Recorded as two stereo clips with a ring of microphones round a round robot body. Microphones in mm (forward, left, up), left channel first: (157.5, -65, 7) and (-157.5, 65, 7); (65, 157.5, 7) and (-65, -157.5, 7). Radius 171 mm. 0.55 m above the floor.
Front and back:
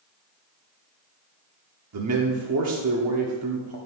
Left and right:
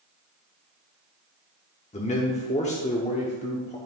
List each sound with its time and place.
1.9 s a man speaking: 135° left, 1.0 m